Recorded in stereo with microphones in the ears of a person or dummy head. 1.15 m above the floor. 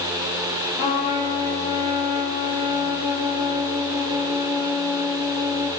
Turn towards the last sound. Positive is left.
turn(degrees=40)  # may be behind; listen again after turning